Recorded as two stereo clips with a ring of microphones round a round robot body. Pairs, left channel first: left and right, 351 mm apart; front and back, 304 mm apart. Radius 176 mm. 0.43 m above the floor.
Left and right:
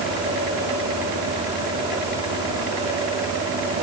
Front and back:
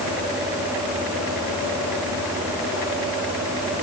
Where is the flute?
I don't hear a flute.